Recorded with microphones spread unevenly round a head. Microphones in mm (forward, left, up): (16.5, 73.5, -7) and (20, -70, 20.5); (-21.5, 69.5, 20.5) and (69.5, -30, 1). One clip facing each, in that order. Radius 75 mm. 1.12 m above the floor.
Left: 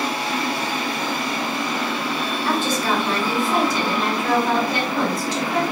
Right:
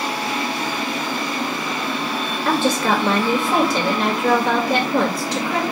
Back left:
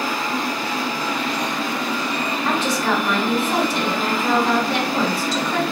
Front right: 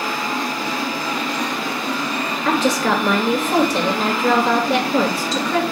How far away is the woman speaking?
About 2.5 m.